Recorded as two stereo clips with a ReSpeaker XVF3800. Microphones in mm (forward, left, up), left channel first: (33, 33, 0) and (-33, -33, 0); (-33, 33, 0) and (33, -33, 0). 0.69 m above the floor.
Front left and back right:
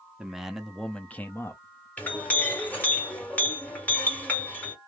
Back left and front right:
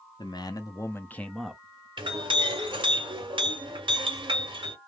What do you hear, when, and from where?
0.2 s a man speaking: 145° left, 0.7 m; by 1.9 s 15° left, 0.6 m
2.0 s a clink: 30° right, 1.4 m